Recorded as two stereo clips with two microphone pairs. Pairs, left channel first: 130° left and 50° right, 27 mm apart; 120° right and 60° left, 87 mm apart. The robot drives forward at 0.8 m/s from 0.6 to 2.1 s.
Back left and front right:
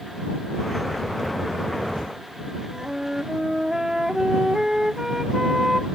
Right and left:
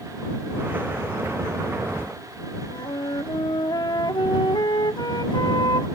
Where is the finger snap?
No finger snap in this recording.